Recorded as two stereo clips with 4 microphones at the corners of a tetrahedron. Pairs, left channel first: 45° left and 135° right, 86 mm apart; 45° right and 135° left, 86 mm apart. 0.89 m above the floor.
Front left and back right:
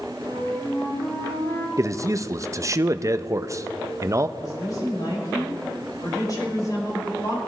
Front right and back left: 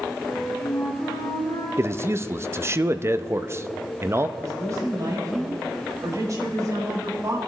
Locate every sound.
0.2 s a flute: 10° right, 5 m
1.8 s a man speaking: straight behind, 0.5 m
4.4 s a woman speaking: 85° left, 5 m